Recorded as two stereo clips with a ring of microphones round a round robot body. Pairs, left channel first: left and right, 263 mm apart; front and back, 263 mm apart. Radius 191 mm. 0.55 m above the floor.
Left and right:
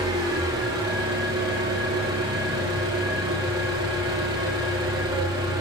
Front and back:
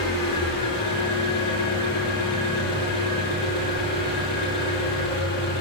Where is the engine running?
10° right, 9 m.